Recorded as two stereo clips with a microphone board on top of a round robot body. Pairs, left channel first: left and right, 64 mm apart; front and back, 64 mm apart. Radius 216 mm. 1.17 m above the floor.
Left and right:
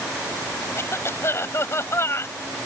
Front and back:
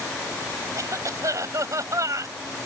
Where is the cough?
140° left.